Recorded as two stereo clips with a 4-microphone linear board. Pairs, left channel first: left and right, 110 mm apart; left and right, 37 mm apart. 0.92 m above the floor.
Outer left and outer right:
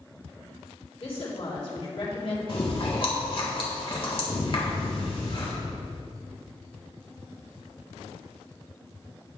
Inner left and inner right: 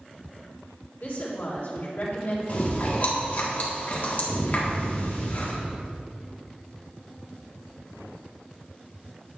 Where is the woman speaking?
55° left (ahead or behind), 3.5 m.